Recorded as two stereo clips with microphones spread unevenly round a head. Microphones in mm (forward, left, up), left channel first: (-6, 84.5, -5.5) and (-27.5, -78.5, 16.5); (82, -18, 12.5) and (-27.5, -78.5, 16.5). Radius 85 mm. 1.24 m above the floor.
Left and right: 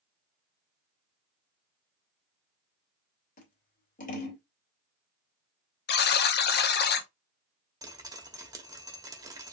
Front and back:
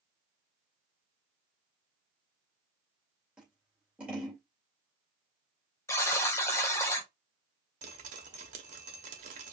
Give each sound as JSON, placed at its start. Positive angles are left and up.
{"t": 3.4, "sound": "scissors", "azimuth_deg": 125, "distance_m": 2.5}
{"t": 5.9, "sound": "a buzzer", "azimuth_deg": 105, "distance_m": 1.0}
{"t": 7.8, "sound": "dripping", "azimuth_deg": -160, "distance_m": 1.5}